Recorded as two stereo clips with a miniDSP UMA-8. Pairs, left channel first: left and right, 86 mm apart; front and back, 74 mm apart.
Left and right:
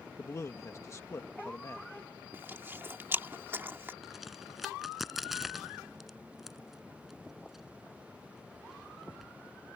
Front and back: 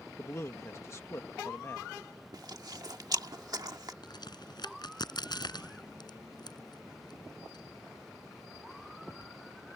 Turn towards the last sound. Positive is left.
turn(degrees=-5)